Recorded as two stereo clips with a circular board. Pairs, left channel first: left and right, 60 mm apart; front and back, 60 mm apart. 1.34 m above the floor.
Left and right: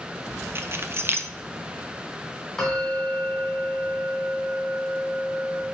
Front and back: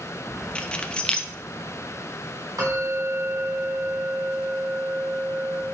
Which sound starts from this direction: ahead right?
Keys jangling, at 0.6 s.